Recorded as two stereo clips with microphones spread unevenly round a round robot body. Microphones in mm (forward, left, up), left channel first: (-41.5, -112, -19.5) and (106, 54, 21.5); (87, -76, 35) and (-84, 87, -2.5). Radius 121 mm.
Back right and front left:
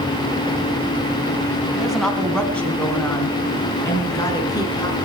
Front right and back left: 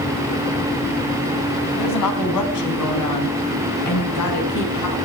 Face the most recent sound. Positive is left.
turn(degrees=-60)